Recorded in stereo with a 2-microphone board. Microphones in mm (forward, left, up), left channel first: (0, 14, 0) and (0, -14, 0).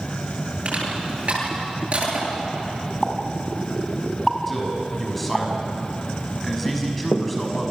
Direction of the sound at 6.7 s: 75° left (ahead or behind).